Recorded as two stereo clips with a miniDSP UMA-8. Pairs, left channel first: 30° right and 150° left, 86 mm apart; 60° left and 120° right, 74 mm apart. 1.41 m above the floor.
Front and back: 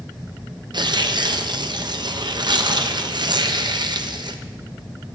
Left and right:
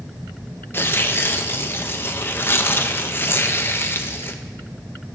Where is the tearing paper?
120° left, 0.5 m.